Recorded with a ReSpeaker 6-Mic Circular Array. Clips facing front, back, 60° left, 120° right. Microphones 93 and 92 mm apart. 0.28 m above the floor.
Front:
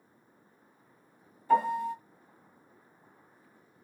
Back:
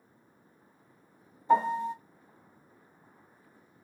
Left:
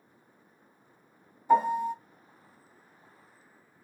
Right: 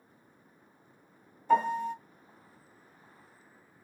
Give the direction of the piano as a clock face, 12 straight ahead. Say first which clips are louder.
Back 1 dB, left 2 dB; 8 o'clock.